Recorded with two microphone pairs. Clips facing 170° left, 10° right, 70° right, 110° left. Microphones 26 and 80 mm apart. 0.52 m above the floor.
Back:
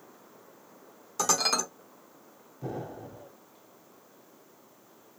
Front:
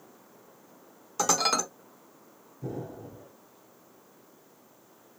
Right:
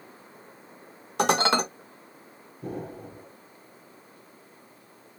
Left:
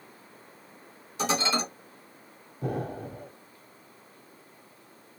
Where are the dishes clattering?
85° right, 0.8 m.